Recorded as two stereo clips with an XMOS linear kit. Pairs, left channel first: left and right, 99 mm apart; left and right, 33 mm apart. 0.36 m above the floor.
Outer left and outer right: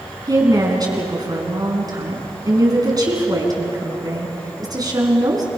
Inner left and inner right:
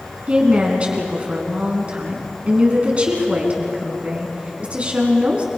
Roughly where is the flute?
I don't hear a flute.